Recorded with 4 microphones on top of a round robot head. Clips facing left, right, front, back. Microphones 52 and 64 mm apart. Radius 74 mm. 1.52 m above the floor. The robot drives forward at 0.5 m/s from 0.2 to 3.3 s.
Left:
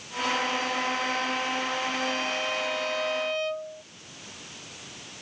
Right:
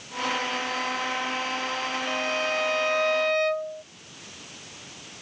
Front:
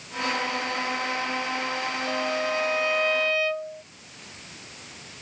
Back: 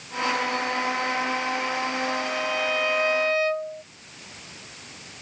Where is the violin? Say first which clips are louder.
Right 2 dB, even; 45° right; by 3.8 s 110° right.